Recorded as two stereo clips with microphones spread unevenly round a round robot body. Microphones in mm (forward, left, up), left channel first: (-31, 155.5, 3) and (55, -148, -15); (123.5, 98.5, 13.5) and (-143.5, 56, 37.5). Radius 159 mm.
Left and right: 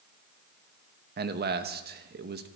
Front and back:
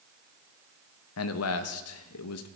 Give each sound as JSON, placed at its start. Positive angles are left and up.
{"t": 1.2, "sound": "a man speaking", "azimuth_deg": -15, "distance_m": 1.0}